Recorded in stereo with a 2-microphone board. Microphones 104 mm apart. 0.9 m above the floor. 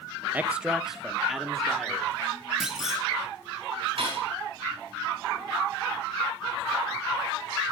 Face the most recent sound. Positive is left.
turn(degrees=-60)  # may be behind; listen again after turning